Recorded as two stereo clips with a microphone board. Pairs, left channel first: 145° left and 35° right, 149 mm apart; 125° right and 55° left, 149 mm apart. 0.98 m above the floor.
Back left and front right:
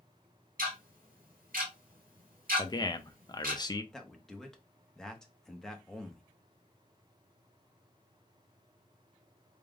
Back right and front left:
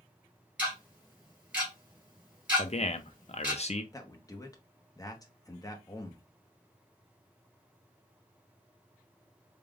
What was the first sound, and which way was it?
Ticking, 25° right.